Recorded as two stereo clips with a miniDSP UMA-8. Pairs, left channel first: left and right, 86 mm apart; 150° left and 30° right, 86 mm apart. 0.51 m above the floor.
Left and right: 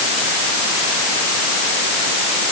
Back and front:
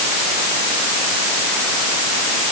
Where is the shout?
I don't hear a shout.